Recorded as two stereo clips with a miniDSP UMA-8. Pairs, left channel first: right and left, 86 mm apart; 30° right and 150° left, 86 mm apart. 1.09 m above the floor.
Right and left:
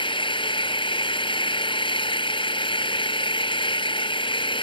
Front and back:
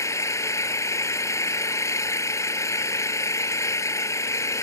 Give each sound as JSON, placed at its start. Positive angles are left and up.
{"t": 0.0, "sound": "an engine running", "azimuth_deg": -85}